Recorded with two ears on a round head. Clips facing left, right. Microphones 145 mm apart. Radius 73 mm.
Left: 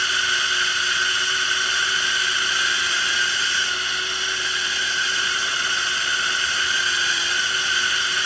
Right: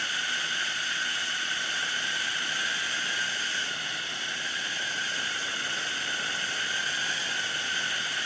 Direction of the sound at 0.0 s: 75° left (ahead or behind).